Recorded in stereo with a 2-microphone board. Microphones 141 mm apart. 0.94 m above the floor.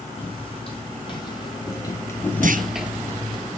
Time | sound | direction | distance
0.2 | footsteps | 40° left (ahead or behind) | 3.5 m
2.4 | a clunk | 70° right (ahead or behind) | 0.6 m